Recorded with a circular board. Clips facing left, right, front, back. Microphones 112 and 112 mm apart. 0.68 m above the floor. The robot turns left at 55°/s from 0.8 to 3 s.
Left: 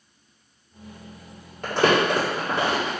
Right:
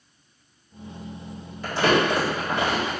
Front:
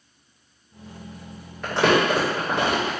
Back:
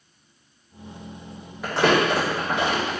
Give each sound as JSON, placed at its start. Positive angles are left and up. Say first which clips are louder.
{"t": 1.6, "sound": "crumpling", "louder": "left 1 dB, even", "azimuth_deg": 100, "distance_m": 1.9}